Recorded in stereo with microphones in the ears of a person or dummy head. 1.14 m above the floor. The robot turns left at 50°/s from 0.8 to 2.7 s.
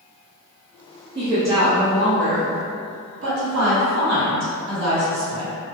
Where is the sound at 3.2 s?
80° right, 1.6 m.